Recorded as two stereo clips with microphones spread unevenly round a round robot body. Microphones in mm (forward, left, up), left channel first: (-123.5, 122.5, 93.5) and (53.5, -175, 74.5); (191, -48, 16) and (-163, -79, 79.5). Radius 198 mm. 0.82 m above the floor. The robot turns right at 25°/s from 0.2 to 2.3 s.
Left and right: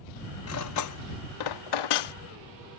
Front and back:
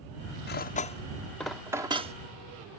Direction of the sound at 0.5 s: 70° left.